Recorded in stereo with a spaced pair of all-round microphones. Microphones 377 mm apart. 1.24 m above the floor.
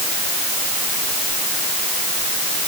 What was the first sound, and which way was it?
Only background noise.